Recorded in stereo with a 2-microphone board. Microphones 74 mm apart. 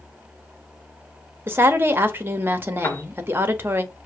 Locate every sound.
1.5 s a woman speaking: 30° right (ahead or behind), 0.7 m
2.8 s a piano: 30° left (ahead or behind), 0.7 m